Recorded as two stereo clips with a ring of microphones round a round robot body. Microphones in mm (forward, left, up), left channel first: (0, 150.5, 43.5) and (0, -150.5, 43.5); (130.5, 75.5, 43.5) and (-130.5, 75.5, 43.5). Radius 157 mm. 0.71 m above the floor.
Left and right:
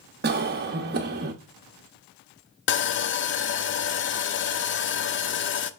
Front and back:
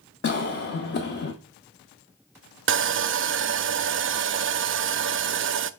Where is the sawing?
140° left, 0.6 m.